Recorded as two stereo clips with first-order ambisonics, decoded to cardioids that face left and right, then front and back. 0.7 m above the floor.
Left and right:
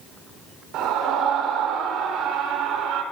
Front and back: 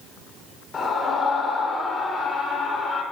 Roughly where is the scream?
Ahead right.